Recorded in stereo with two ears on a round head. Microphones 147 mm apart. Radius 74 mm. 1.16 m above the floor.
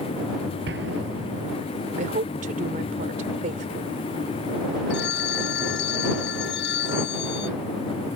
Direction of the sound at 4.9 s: 80° left.